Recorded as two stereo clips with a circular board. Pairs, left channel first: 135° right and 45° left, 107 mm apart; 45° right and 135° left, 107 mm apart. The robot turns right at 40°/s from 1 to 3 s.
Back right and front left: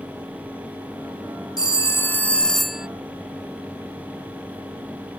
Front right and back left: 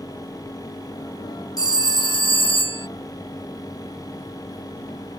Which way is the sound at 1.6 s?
90° right.